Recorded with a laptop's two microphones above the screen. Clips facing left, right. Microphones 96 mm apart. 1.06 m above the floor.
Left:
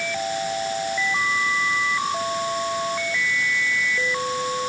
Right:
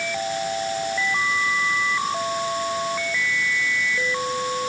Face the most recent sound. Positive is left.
No sound to turn to.